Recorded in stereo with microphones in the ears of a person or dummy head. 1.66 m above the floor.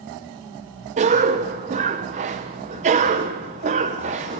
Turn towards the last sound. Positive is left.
turn(degrees=-35)  # may be behind; listen again after turning